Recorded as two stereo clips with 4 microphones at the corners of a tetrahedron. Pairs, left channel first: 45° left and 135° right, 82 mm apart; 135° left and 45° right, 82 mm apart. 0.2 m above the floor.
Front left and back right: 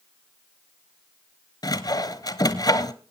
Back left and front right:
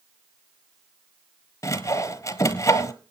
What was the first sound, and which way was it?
Sawing, 85° left.